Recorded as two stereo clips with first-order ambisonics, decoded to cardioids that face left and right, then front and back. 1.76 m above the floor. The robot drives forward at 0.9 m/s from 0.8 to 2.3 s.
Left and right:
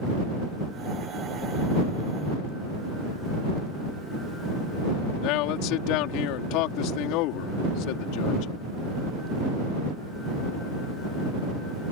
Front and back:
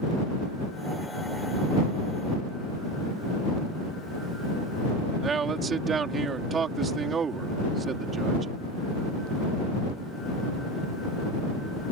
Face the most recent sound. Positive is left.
turn(degrees=110)